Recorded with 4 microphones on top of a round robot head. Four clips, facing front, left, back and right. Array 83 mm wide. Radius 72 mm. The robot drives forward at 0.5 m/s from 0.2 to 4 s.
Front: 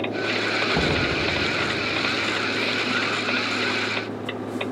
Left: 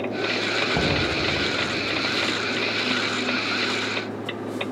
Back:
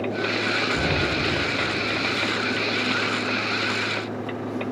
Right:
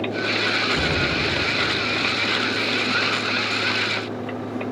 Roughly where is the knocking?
Ahead left.